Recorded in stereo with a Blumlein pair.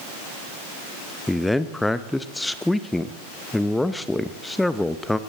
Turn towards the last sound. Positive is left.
turn(degrees=5)